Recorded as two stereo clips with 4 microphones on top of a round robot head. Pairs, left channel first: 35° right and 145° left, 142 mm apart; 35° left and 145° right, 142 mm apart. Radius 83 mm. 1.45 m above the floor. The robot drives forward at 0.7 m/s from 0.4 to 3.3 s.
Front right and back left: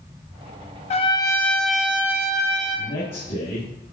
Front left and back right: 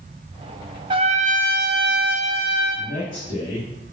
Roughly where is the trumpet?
Right.